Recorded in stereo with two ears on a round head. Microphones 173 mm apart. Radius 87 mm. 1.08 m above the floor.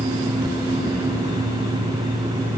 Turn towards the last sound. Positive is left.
No sound to turn to.